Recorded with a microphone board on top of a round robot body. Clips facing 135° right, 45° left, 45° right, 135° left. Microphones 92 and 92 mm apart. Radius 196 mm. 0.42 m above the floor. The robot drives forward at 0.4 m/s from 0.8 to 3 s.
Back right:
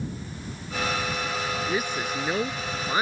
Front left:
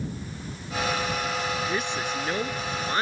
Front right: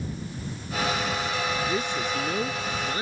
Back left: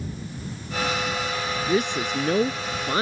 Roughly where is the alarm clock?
No alarm clock in this recording.